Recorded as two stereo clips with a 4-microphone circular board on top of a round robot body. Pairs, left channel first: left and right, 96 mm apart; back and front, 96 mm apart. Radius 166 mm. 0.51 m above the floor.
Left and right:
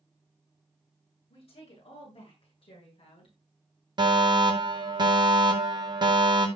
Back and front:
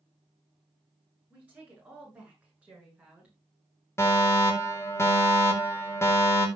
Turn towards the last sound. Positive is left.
turn(degrees=-120)